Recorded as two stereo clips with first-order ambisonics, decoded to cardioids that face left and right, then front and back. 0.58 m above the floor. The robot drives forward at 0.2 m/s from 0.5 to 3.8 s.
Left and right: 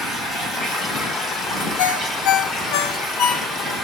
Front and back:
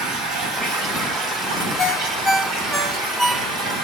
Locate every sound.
0.0 s running water: 165° left, 2.5 m
1.8 s a ringtone: 75° left, 0.5 m; by 3.8 s 115° left, 0.6 m